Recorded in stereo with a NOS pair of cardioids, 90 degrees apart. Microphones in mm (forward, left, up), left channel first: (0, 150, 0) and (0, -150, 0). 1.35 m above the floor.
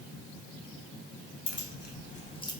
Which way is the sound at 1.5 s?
45° left.